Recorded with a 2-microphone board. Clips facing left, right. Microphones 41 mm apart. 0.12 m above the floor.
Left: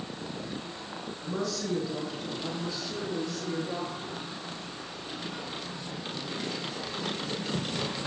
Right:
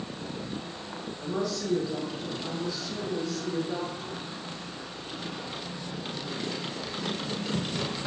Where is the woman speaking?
15° right (ahead or behind), 2.0 m; by 4.2 s 35° left (ahead or behind), 2.0 m.